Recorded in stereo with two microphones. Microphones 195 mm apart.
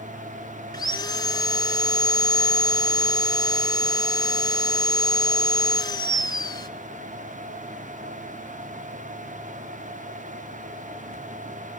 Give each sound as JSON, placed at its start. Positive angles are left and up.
{"t": 0.7, "sound": "sawing", "side_deg": 20, "distance_m": 0.7}